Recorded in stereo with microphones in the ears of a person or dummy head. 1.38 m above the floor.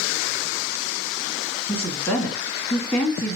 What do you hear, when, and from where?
1.7 s a woman speaking: 10° left (ahead or behind), 1.9 m